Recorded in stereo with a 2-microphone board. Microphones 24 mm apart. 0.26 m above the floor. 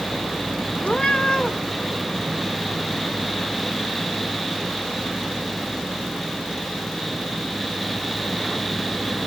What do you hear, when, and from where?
0.8 s a cat meowing: 40° left (ahead or behind), 1.2 m